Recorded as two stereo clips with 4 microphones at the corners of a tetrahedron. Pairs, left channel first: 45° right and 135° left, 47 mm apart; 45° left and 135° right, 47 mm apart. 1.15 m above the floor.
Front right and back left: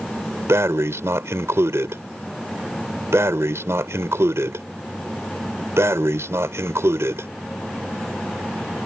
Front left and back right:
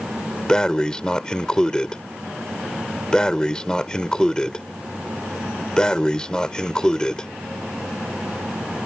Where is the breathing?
120° left.